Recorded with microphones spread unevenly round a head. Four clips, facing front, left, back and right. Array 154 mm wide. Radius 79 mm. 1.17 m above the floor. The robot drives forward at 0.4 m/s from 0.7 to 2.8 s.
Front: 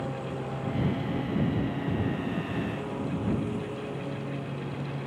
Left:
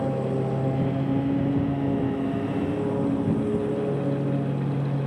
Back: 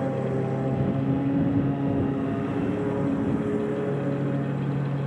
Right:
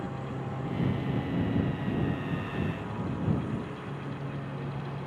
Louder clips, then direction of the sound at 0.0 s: Left 11 dB, back 7 dB; 140° left.